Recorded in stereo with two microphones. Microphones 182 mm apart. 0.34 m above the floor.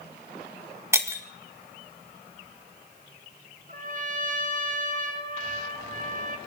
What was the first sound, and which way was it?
Breaking glass, 15° right (ahead or behind).